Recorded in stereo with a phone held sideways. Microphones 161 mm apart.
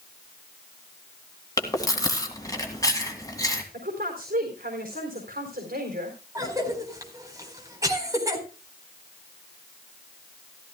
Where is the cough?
20° right (ahead or behind), 4 m.